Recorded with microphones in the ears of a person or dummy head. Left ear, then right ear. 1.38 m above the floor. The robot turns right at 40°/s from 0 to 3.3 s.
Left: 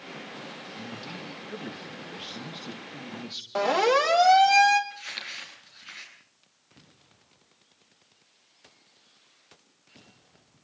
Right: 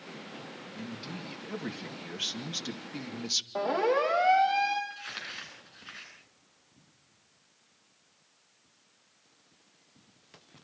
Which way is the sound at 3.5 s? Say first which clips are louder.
Left 7 dB; 60° left (ahead or behind).